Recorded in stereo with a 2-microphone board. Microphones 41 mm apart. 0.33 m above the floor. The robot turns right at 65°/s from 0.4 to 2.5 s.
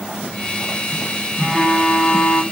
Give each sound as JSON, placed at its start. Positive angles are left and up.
{"t": 1.4, "sound": "a phone buzzing", "azimuth_deg": 0, "distance_m": 1.2}